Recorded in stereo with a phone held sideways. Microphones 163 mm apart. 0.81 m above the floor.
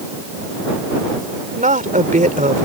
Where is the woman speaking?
55° right (ahead or behind).